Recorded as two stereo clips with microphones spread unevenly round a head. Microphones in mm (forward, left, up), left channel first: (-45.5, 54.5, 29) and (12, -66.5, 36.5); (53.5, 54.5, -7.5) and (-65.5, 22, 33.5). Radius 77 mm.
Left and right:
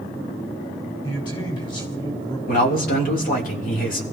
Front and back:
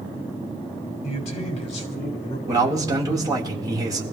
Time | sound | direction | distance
1.0 | a man speaking | 55° left | 6.5 m
2.5 | a man speaking | 130° left | 3.5 m